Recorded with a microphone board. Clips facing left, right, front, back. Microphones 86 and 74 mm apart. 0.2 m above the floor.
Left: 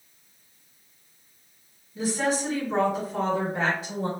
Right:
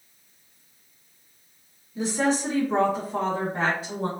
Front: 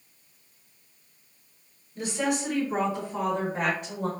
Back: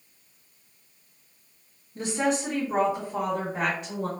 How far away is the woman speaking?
About 1.8 m.